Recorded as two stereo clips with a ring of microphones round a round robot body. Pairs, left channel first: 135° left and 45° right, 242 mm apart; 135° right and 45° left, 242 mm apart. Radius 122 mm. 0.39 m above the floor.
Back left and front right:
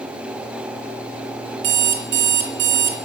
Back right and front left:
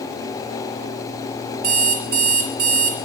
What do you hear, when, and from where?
1.6 s an alarm clock: 5° right, 3 m